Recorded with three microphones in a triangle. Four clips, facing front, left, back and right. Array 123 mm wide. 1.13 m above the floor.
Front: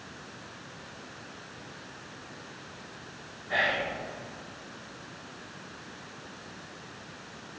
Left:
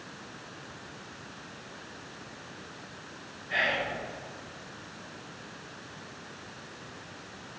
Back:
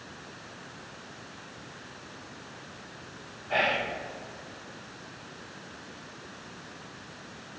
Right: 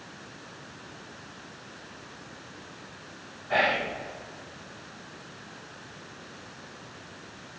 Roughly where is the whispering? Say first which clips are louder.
Right 5 dB, back 1 dB; right.